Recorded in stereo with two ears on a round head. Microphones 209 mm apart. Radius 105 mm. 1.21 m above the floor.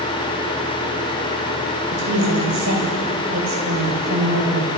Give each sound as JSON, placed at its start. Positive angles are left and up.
{"t": 1.9, "sound": "a woman speaking", "side_deg": -80, "distance_m": 6.5}